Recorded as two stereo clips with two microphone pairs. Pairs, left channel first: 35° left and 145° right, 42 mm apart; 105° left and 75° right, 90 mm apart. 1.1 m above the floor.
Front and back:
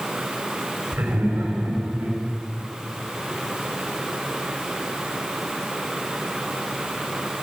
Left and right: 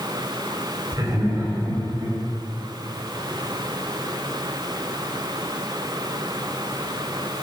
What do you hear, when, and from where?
0.9 s laughter: 125° right, 5.5 m; by 2.2 s 140° right, 6 m